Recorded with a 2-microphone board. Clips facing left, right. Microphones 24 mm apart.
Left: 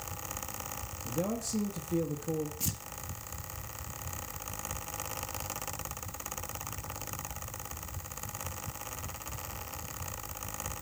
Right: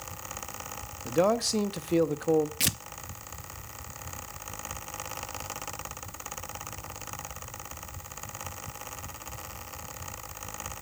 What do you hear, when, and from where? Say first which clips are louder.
1.1 s a man speaking: right 10 dB; 60° right (ahead or behind), 1.0 m
2.6 s tearing paper: right 8 dB; 85° right, 0.6 m